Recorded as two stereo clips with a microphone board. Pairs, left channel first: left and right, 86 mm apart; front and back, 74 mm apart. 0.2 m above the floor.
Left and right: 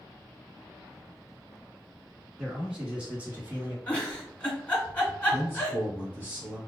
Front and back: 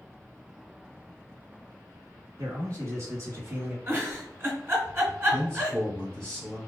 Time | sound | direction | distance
2.4 | a man speaking | 175° right | 1.8 m
3.9 | a giggle | 155° left | 1.8 m
5.3 | a man speaking | 55° right | 1.6 m